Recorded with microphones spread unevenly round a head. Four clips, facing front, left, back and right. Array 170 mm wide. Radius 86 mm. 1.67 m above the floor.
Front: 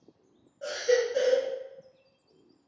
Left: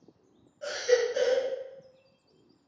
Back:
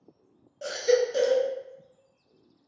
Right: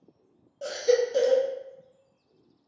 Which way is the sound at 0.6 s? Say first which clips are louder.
Right 2 dB, back 2 dB; 125° right.